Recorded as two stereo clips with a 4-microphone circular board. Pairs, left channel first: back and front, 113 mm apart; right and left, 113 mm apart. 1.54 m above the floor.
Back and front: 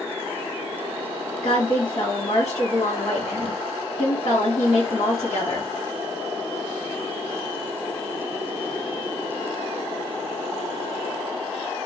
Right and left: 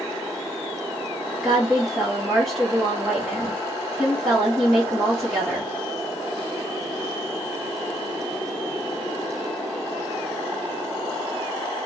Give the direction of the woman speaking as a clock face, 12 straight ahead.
6 o'clock.